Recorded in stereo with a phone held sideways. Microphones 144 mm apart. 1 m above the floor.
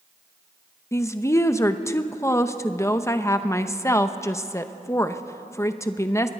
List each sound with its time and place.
0.9 s a woman speaking: 20° left (ahead or behind), 0.8 m